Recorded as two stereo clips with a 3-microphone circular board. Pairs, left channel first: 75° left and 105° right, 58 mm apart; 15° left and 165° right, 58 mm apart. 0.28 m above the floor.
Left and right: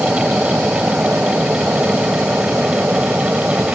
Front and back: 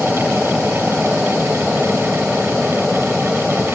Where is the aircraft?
70° right; by 3.8 s 75° right.